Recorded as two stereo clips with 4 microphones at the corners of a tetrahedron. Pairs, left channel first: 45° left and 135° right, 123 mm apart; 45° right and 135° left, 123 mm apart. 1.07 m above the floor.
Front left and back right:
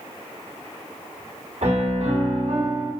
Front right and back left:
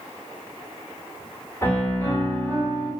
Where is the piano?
115° right, 1.2 m.